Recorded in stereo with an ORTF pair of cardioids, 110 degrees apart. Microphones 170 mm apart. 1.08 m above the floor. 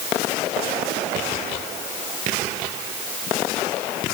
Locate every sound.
Only background noise.